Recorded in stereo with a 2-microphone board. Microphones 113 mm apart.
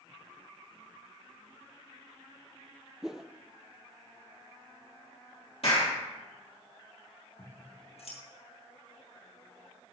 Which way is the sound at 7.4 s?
65° left (ahead or behind).